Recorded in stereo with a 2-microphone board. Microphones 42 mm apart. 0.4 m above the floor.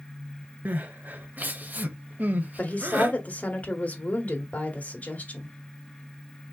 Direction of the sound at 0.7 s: 45° right (ahead or behind).